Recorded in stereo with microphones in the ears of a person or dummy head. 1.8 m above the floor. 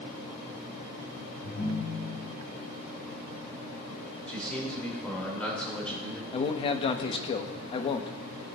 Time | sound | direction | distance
1.4 | a ringtone | 55° left (ahead or behind) | 3.5 m
4.3 | a man speaking | 5° left (ahead or behind) | 3 m
6.3 | a man speaking | 30° left (ahead or behind) | 0.9 m